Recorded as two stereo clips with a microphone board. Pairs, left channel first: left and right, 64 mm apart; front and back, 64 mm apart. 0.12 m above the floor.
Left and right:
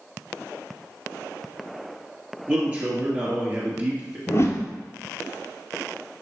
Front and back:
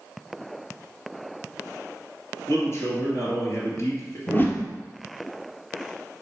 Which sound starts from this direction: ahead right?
A man speaking, at 2.5 s.